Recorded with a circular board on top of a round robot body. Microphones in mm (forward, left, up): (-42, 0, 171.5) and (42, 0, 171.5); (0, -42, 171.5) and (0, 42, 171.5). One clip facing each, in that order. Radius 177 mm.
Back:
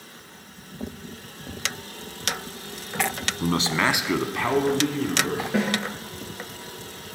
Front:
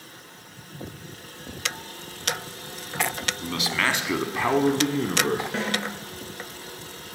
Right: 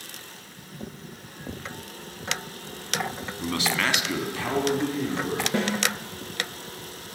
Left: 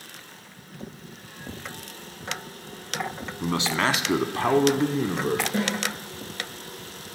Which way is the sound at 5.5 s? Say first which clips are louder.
Back 4 dB, right 1 dB; 95° right.